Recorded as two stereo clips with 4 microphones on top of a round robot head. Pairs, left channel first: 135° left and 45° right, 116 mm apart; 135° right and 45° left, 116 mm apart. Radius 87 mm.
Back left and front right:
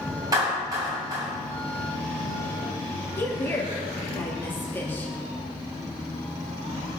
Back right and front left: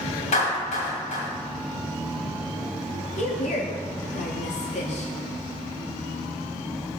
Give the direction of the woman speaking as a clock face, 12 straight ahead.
5 o'clock.